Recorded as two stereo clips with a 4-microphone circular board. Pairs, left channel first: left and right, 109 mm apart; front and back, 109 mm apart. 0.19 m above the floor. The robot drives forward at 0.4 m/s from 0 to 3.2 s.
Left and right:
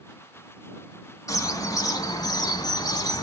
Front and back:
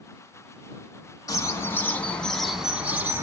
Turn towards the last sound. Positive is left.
turn(degrees=125)